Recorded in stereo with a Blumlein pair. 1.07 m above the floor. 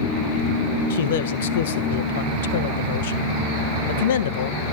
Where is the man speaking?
55° left, 1.1 m.